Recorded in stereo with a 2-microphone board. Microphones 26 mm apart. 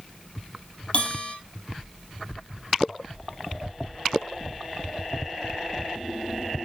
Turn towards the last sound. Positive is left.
turn(degrees=45)  # may be behind; listen again after turning